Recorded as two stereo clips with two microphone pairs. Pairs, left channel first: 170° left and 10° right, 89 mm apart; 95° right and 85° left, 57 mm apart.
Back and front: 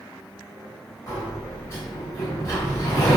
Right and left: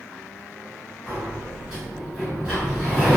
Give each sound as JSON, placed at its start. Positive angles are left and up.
{"t": 1.1, "sound": "a sliding door", "azimuth_deg": 155, "distance_m": 1.8}